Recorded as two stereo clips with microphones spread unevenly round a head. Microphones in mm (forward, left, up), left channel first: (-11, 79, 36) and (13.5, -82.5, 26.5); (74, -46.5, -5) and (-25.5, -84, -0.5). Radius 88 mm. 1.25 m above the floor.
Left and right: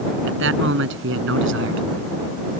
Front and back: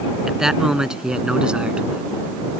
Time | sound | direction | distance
0.3 | a man speaking | 75° right | ?